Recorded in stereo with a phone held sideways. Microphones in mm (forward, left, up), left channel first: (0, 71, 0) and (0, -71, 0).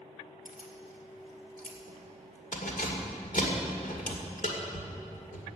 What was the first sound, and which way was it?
Keys jangling, 80° left.